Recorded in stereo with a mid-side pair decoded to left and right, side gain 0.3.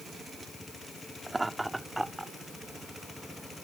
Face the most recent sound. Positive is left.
turn(degrees=-15)